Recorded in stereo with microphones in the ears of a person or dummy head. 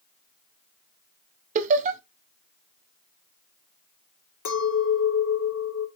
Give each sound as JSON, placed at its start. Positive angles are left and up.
{"t": 1.6, "sound": "laughter", "side_deg": -40, "distance_m": 0.9}
{"t": 4.5, "sound": "a clink", "side_deg": 60, "distance_m": 2.0}